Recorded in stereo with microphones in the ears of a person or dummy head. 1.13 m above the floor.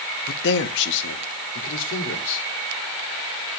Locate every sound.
0.3 s a man speaking: 55° left (ahead or behind), 1.0 m; by 2.5 s 70° left (ahead or behind), 3 m